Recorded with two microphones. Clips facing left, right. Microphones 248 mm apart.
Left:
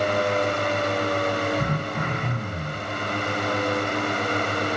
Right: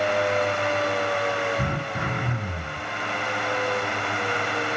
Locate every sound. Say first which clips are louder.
1.6 s throat clearing: left 2 dB; 5° right (ahead or behind), 7 m